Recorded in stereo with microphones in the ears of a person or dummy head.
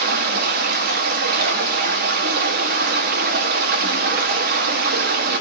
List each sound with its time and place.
0.0 s running water: 50° right (ahead or behind), 1.1 m